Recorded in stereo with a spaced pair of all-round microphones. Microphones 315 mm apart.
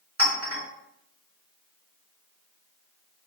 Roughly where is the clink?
Right.